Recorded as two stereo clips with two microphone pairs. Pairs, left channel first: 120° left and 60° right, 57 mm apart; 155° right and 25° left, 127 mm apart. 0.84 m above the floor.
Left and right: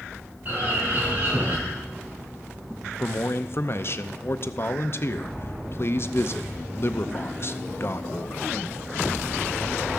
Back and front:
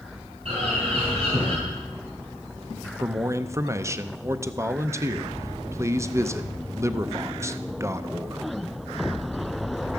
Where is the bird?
5° right, 4 m.